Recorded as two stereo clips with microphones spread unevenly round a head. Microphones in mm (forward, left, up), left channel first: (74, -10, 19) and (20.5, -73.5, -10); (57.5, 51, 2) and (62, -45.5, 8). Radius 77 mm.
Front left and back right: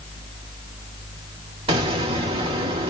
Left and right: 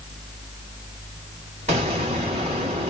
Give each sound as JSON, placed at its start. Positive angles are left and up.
{"t": 1.7, "sound": "an explosion", "azimuth_deg": -135, "distance_m": 2.5}